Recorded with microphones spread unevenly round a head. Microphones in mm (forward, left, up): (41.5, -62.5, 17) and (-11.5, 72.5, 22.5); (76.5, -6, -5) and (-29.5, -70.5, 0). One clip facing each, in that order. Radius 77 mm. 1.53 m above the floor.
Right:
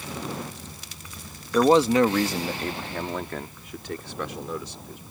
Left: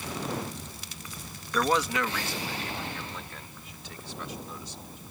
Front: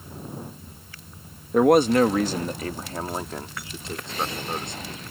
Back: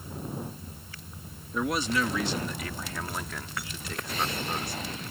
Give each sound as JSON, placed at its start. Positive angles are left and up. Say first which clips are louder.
{"t": 1.5, "sound": "a man speaking", "louder": "right 9 dB, front 12 dB", "azimuth_deg": 0}